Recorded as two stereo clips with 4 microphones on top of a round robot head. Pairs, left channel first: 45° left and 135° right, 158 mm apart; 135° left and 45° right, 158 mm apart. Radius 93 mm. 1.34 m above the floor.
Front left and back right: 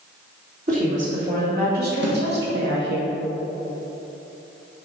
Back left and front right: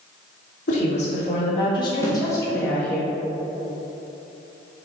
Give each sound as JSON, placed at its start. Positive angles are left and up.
{"t": 0.7, "sound": "a woman speaking", "azimuth_deg": 180, "distance_m": 2.0}
{"t": 2.0, "sound": "a snare drum", "azimuth_deg": -150, "distance_m": 1.5}